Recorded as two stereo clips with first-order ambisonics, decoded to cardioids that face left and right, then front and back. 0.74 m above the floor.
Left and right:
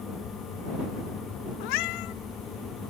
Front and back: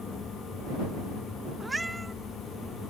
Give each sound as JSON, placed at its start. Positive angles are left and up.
{"t": 1.6, "sound": "a cat meowing", "azimuth_deg": 100}